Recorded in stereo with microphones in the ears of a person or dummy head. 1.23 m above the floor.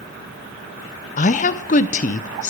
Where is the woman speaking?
40° left (ahead or behind), 0.5 m.